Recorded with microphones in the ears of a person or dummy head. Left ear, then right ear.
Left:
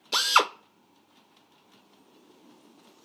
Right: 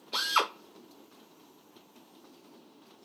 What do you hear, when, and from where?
0.1 s a drill: 85° left, 0.7 m